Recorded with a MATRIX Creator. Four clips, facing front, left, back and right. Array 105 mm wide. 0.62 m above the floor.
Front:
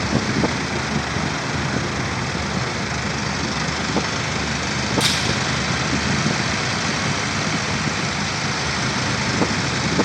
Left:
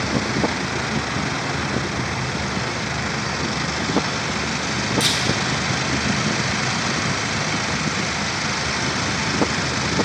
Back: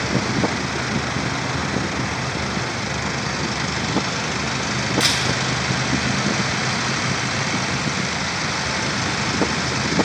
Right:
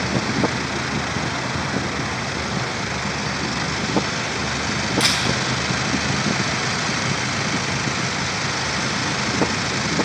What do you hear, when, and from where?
5.0 s a camera shutter: 145° right, 2.5 m